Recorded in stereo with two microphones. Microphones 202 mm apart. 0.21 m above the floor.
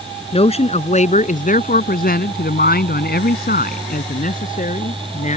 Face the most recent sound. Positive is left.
turn(degrees=35)  # may be behind; listen again after turning